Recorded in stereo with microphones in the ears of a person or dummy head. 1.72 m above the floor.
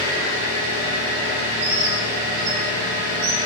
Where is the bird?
55° right (ahead or behind), 0.7 m.